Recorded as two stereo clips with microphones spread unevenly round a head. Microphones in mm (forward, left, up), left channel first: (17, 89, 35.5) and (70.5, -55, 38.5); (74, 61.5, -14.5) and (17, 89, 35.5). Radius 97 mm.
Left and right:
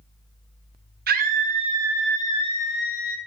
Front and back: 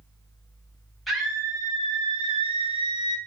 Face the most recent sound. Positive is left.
turn(degrees=130)